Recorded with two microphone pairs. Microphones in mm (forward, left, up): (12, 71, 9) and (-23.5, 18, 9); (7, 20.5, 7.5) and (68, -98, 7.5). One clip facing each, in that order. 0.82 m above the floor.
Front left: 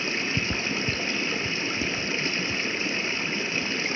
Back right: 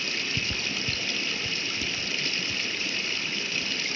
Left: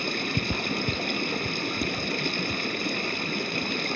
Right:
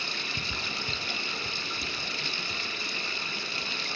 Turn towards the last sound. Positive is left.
turn(degrees=110)